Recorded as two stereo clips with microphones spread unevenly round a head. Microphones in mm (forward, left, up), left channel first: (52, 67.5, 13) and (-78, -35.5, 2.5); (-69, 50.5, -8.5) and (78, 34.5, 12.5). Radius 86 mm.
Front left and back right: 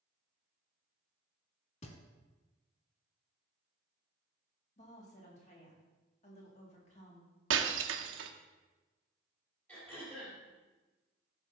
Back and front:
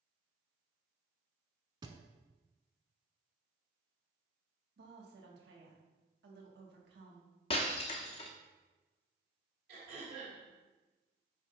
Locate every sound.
1.8 s a thud: 25° left, 1.1 m
4.8 s a woman speaking: 15° right, 2.0 m
7.5 s breaking glass: 125° right, 0.8 m
9.7 s throat clearing: 45° right, 4 m